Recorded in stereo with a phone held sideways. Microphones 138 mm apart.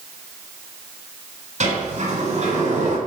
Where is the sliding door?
60° right (ahead or behind), 7 m.